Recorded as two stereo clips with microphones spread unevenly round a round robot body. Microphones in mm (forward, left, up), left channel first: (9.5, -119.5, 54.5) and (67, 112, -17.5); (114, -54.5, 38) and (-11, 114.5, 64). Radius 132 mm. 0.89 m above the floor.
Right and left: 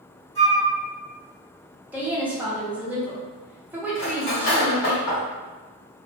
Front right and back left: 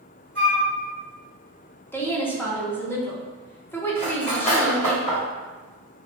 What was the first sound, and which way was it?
A flute, 145° right.